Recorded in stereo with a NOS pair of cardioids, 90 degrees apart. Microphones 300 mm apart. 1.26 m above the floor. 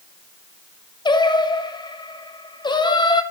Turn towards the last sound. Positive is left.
turn(degrees=15)